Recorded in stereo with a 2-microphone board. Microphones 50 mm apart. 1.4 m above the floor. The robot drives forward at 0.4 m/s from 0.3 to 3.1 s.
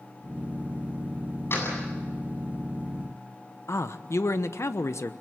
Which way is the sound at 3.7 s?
65° left (ahead or behind).